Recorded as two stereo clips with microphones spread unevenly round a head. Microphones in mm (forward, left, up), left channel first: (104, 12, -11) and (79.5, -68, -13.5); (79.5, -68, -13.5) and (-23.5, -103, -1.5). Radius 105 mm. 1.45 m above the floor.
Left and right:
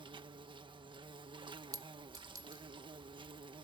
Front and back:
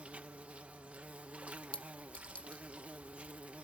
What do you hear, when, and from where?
0.0 s an insect: 85° right
1.7 s a clink: 65° right